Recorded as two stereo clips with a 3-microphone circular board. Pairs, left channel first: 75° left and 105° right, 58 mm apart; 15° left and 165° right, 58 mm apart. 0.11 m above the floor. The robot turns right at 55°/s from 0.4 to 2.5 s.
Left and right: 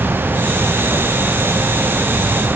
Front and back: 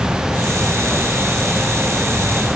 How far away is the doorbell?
I don't hear a doorbell.